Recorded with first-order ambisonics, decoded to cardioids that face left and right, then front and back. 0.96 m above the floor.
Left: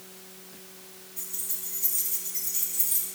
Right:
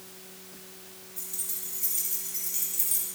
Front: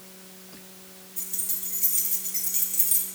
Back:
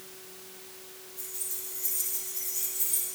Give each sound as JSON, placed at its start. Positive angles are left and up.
{"t": 1.2, "sound": "keys jangling", "azimuth_deg": -10, "distance_m": 2.5}